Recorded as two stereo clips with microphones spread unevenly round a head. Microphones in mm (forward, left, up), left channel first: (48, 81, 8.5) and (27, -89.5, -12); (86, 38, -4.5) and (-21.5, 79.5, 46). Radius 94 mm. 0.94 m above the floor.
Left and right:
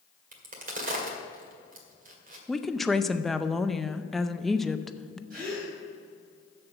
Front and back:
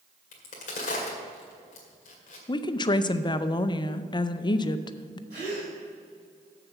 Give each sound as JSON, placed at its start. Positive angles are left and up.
{"t": 0.3, "sound": "a crack", "azimuth_deg": -55, "distance_m": 2.0}
{"t": 2.5, "sound": "a woman speaking", "azimuth_deg": -10, "distance_m": 0.5}
{"t": 5.3, "sound": "a gasp", "azimuth_deg": -145, "distance_m": 4.0}